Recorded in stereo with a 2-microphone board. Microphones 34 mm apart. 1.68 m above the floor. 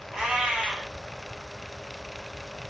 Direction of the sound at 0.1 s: 20° right (ahead or behind).